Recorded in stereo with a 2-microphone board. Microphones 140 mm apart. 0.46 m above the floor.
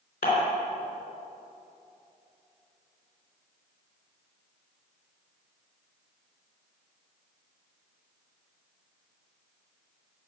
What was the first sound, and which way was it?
Dishes clattering, 85° left.